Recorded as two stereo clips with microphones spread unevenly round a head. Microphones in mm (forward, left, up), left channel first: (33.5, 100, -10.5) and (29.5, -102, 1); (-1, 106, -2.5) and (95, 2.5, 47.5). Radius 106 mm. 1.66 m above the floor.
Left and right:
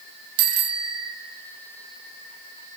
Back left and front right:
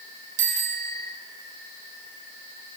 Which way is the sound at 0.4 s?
90° right.